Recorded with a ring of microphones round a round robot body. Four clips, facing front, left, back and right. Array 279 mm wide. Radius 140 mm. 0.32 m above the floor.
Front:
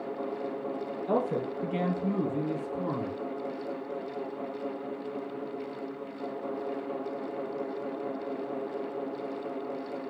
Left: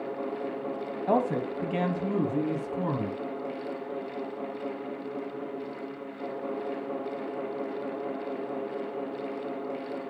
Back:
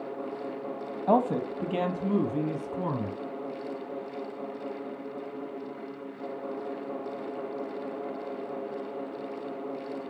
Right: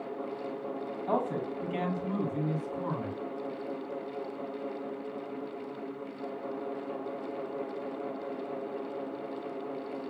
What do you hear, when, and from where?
1.1 s a man speaking: 150° left, 2 m; by 3.2 s 140° left, 3 m